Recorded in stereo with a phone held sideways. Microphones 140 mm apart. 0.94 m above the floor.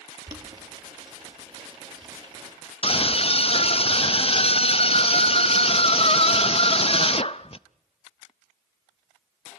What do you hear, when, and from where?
0.3 s boiling: 30° right (ahead or behind), 4.5 m
2.8 s a scream: 45° left (ahead or behind), 0.6 m